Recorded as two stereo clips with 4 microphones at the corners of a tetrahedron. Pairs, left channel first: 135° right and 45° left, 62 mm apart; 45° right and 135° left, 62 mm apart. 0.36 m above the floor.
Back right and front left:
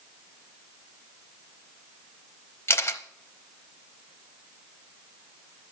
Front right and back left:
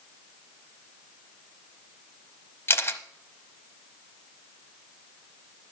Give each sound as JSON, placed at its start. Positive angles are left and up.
{"t": 2.7, "sound": "a camera shutter", "azimuth_deg": -90, "distance_m": 0.8}